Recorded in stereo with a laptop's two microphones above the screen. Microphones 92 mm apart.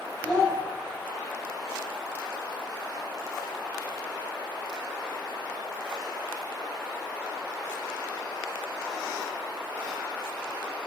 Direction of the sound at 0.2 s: 10° left (ahead or behind).